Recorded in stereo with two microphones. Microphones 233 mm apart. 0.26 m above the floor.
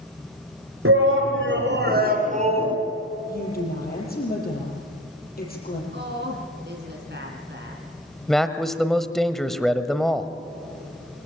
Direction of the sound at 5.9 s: 50° right (ahead or behind).